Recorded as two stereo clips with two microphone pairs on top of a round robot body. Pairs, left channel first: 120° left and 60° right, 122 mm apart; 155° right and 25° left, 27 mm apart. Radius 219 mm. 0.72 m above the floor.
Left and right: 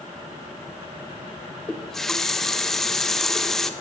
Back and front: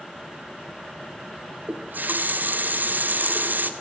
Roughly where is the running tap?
Ahead left.